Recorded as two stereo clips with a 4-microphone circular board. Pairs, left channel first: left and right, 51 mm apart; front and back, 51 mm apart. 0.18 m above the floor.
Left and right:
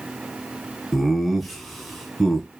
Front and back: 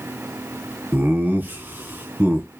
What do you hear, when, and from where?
0.9 s laughter: straight behind, 1.4 m